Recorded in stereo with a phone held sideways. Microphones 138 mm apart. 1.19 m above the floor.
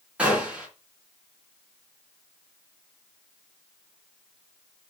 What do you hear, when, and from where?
0.2 s a gunshot: 10° right (ahead or behind), 3 m